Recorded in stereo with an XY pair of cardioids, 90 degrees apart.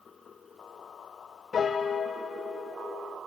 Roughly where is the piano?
Ahead left.